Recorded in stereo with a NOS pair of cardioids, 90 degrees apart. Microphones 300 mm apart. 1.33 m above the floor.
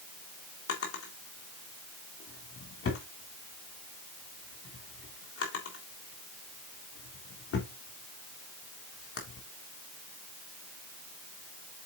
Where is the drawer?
50° left, 3.5 m.